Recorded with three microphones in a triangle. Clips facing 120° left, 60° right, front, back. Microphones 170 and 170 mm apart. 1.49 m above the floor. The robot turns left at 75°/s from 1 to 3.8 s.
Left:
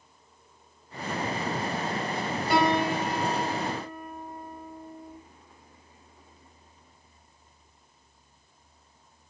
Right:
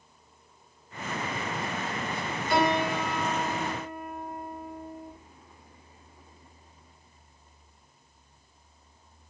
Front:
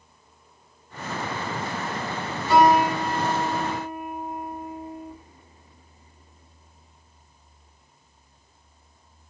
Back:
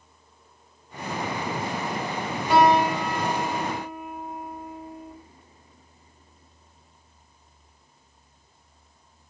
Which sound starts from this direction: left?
A piano, at 2.5 s.